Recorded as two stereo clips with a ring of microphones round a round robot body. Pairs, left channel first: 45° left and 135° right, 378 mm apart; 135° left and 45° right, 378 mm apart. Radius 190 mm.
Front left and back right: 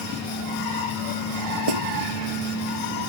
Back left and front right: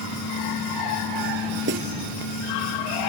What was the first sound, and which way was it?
A snare drum, 105° right.